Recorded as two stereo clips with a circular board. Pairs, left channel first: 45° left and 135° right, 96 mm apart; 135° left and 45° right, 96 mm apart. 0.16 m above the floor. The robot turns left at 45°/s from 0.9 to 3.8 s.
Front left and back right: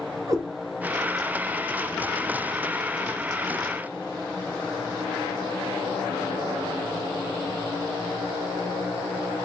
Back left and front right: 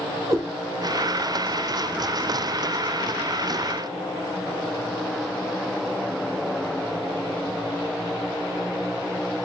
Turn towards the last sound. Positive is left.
turn(degrees=140)